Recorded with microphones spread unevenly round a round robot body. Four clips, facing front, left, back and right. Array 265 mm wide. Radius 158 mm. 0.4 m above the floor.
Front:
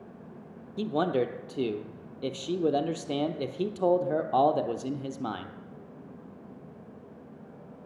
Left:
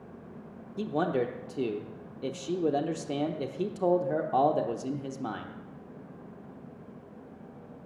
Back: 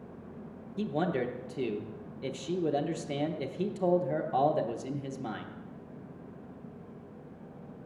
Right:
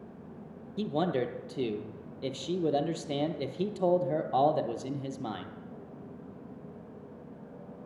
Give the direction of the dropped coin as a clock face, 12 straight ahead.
No dropped coin in this recording.